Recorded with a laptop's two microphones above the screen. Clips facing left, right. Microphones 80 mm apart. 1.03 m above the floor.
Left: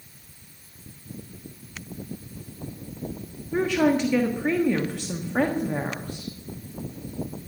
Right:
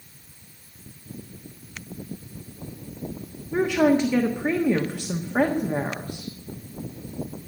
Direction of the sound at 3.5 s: 10° right (ahead or behind).